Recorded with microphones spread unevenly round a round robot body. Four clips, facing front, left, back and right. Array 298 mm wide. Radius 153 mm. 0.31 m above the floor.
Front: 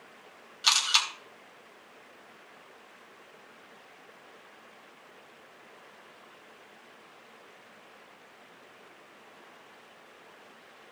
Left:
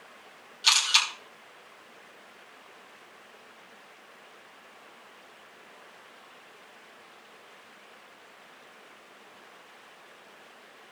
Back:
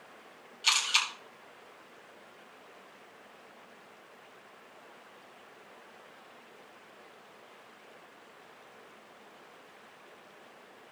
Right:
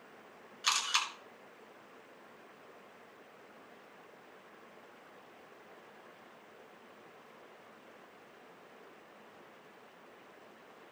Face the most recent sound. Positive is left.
turn(degrees=-30)